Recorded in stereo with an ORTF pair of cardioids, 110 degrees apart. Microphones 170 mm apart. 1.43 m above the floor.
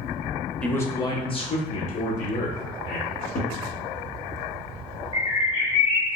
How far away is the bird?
About 0.9 m.